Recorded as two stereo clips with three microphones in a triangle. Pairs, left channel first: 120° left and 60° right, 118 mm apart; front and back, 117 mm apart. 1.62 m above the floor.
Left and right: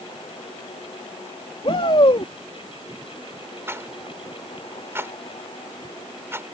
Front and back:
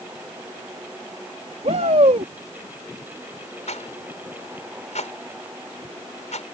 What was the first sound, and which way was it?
A shout, 160° left.